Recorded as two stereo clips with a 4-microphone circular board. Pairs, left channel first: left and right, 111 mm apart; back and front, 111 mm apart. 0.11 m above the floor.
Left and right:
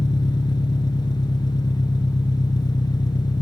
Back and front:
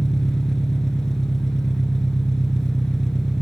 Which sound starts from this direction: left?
An engine running, at 0.0 s.